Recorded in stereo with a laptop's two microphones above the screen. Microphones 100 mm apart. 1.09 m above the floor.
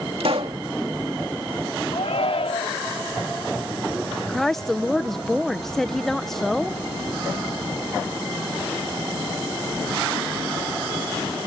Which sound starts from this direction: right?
A pop, at 0.2 s.